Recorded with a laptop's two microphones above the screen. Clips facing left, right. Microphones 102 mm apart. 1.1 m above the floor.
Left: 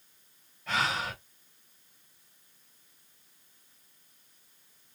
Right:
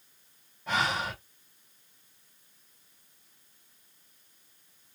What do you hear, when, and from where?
0.7 s breathing: 20° right (ahead or behind), 2.5 m